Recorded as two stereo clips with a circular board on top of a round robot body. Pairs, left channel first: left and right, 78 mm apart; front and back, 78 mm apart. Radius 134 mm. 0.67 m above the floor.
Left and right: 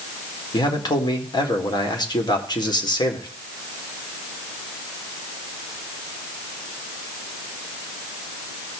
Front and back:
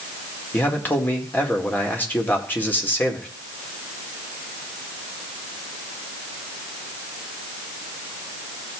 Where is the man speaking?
65° left, 2.0 m.